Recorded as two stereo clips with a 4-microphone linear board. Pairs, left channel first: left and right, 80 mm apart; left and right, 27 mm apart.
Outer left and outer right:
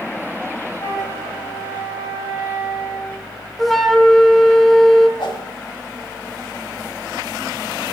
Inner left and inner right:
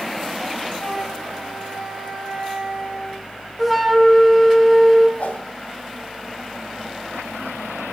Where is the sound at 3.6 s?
Centre (ahead or behind), 0.7 m.